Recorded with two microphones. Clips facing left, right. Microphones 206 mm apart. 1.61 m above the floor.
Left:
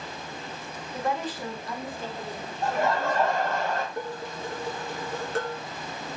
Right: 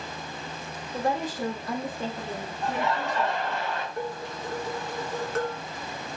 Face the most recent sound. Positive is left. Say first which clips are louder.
# right 1 dB
turn(degrees=30)  # may be behind; listen again after turning